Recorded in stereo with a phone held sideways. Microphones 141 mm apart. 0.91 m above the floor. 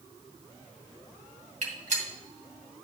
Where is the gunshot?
60° right (ahead or behind), 2.5 m.